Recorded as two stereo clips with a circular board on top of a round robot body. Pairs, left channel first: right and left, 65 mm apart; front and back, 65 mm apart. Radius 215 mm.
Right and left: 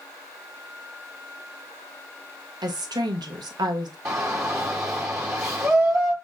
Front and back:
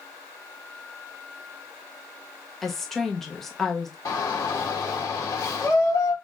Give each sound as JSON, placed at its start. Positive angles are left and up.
{"t": 2.6, "sound": "a woman speaking", "azimuth_deg": 85, "distance_m": 0.7}
{"t": 4.0, "sound": "a shout", "azimuth_deg": 40, "distance_m": 0.9}